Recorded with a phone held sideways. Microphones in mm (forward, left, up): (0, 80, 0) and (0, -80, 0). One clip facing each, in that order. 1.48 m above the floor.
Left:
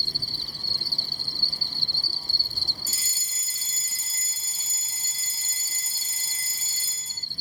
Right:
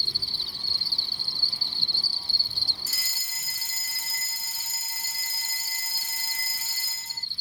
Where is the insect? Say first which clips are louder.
Left 3 dB; 45° left (ahead or behind).